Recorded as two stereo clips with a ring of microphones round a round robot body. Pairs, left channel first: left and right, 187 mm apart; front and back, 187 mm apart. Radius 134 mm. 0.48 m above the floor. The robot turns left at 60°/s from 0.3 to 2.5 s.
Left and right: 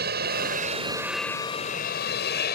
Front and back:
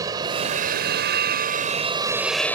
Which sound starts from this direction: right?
An aircraft, at 0.0 s.